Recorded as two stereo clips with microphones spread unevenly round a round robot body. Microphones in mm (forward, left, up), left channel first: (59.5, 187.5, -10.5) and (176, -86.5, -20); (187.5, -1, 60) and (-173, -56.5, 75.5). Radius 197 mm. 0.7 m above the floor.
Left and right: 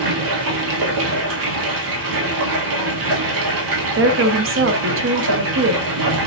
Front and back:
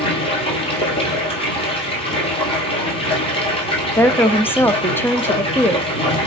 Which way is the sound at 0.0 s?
65° right.